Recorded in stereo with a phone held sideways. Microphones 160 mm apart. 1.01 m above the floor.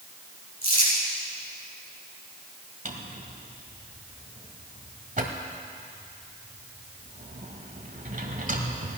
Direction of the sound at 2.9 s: 55° right (ahead or behind).